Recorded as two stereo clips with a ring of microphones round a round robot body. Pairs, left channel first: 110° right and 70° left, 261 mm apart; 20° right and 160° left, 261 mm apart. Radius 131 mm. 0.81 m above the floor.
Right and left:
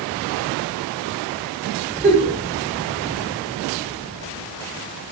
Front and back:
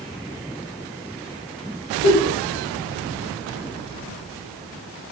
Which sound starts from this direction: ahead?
A giggle, at 2.0 s.